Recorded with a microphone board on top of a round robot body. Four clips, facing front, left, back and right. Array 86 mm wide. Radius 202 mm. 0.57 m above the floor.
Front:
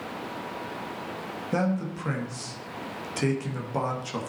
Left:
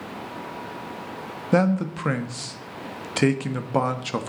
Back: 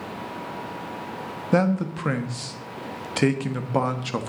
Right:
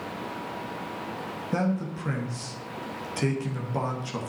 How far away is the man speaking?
About 1.7 m.